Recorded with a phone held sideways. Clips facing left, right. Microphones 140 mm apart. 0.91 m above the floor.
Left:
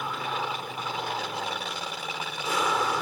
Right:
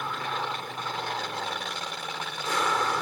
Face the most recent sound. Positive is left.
turn(degrees=5)  # may be behind; listen again after turning